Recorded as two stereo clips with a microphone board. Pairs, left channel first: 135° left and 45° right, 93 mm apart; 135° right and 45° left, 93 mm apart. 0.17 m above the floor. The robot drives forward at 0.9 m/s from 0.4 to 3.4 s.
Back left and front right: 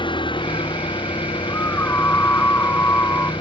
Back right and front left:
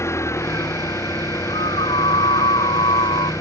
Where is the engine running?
165° left.